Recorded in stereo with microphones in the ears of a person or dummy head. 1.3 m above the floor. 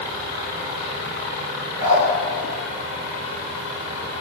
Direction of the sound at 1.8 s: 25° right (ahead or behind).